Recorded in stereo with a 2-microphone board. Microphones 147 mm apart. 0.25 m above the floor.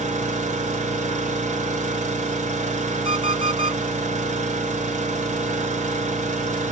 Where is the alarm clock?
35° right (ahead or behind), 1.1 m.